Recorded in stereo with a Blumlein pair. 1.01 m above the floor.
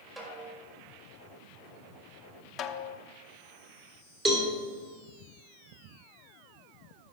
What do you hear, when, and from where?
0.2 s a snare drum: 20° right, 3.5 m
2.6 s a snare drum: 25° left, 0.7 m
4.2 s a cowbell: 20° right, 3 m